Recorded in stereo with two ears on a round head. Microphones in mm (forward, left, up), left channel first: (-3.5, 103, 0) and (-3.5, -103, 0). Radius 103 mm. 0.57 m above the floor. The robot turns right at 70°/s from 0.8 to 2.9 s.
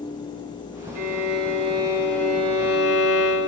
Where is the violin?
80° right, 1.9 m; by 3.5 s 60° left, 1.9 m.